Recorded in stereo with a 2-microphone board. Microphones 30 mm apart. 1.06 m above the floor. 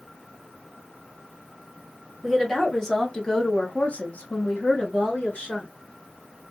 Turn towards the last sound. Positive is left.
turn(degrees=55)  # may be behind; listen again after turning